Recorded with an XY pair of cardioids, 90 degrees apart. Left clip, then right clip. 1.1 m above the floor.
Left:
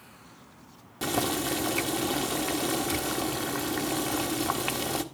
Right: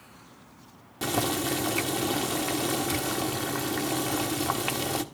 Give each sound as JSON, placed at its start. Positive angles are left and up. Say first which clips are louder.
{"t": 1.0, "sound": "boiling", "louder": "right 1 dB", "azimuth_deg": 0, "distance_m": 1.3}